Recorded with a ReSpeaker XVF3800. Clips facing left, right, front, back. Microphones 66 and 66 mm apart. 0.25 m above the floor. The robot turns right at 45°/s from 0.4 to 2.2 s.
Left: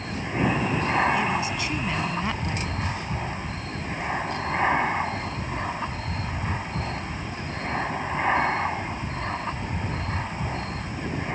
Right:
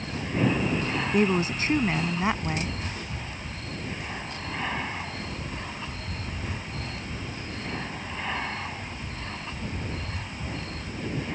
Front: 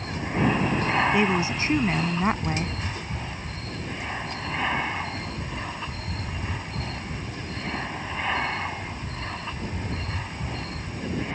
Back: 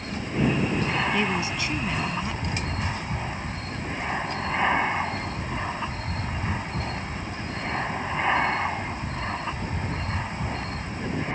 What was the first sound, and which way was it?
An aircraft, 35° left.